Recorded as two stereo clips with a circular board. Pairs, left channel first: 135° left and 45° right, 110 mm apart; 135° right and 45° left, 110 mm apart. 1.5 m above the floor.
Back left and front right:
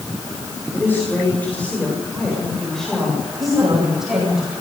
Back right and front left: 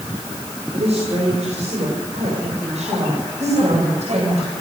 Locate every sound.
0.7 s a woman speaking: 65° left, 7.5 m; by 4.4 s 40° left, 8.5 m
3.4 s a woman speaking: 10° left, 7 m